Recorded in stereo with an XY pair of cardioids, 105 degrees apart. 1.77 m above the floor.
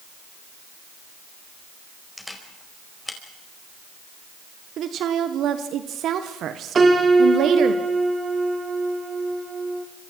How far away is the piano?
About 3.5 m.